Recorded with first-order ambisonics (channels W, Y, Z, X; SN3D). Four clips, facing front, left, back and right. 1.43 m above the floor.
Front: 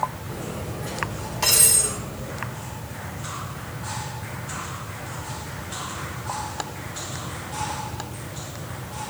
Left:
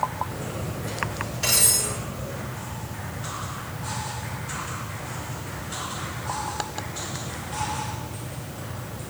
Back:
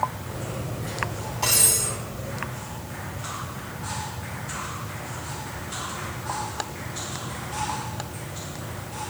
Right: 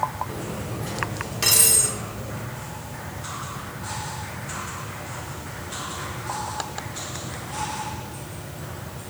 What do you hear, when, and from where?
0.3 s cutlery clinking: 65° right, 3 m